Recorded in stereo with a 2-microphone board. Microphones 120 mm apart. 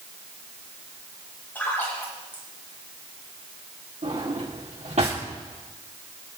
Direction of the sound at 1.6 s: 15° left (ahead or behind).